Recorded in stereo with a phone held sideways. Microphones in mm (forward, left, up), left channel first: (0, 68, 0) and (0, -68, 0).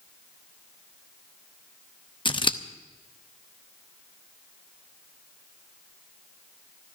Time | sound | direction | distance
2.2 | scissors | 35° left (ahead or behind) | 0.7 m